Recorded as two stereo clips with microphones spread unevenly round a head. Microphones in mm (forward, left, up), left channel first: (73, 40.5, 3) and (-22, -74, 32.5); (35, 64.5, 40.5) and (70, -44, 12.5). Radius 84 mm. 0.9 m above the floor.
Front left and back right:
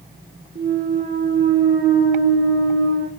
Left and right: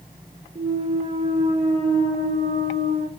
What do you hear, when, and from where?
0.6 s a clunk: 105° right, 1.5 m